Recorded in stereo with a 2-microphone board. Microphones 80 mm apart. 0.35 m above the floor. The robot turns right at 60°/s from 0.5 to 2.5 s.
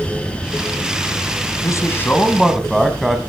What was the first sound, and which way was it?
A man speaking, 130° left.